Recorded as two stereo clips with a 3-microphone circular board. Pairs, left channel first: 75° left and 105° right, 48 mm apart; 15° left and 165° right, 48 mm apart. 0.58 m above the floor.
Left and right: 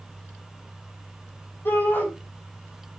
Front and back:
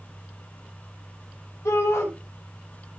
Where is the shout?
30° left, 5.5 m.